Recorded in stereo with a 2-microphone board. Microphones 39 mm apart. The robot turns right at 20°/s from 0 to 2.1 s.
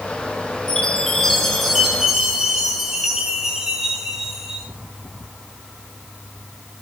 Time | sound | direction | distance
0.7 | a chime | 20° left (ahead or behind) | 7 m